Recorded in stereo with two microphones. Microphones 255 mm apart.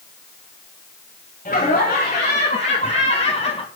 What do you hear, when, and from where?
1.4 s laughter: 30° left (ahead or behind), 3 m; by 3.7 s 20° left (ahead or behind), 1.4 m